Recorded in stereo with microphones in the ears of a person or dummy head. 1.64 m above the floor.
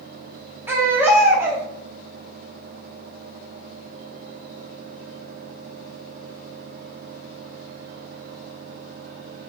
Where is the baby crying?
10° right (ahead or behind), 0.8 m.